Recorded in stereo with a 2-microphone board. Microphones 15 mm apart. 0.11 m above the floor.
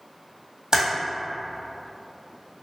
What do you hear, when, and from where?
0.7 s typing on a keyboard: 45° right (ahead or behind), 1.4 m